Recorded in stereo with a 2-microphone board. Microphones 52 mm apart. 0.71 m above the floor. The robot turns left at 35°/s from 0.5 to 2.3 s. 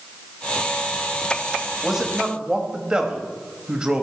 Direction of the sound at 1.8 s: 5° right (ahead or behind).